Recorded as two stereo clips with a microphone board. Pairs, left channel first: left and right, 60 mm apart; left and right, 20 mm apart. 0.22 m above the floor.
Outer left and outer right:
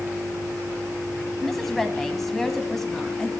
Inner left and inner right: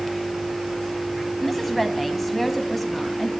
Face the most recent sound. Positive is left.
turn(degrees=5)  # may be behind; listen again after turning